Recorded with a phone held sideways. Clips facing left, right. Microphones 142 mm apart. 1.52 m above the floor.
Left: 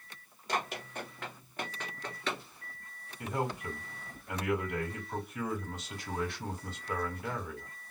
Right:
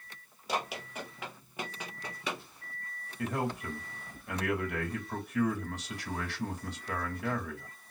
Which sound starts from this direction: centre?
Running footsteps, at 0.5 s.